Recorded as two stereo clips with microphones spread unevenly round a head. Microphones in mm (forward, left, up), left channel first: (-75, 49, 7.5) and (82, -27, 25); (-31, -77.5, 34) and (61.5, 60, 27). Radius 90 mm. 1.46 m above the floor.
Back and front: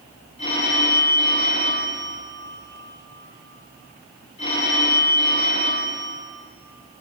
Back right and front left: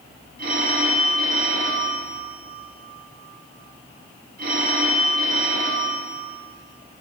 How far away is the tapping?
No tapping in this recording.